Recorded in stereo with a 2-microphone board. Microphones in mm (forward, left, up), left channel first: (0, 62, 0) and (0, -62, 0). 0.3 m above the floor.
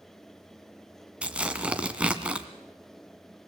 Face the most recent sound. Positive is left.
turn(degrees=-10)  # may be behind; listen again after turning